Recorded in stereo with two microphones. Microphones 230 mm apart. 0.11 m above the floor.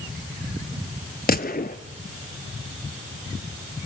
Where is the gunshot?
40° left (ahead or behind), 1.1 m.